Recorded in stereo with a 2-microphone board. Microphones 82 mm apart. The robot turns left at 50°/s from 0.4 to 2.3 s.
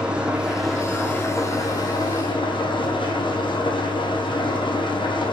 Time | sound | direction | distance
0.0 | an engine running | 165° right | 1.7 m